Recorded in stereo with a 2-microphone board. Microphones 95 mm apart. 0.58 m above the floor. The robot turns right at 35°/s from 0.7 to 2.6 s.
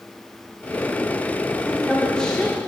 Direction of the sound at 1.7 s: 5° right.